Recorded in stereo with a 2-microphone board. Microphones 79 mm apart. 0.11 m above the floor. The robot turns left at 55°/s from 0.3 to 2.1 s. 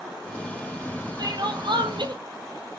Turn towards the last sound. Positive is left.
turn(degrees=-105)